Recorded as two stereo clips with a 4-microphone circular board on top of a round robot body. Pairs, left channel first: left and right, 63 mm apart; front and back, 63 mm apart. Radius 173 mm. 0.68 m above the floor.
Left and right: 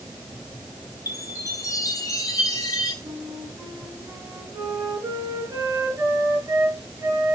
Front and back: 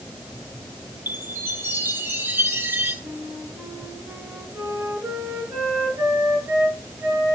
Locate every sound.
1.1 s a chime: 120° left, 5 m
3.0 s a flute: 130° right, 5.5 m